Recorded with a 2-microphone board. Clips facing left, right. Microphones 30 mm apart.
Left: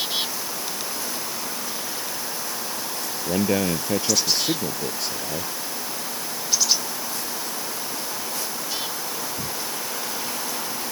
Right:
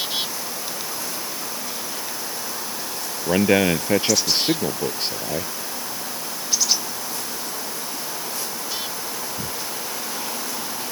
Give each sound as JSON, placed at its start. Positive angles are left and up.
{"t": 3.3, "sound": "a man speaking", "side_deg": -45}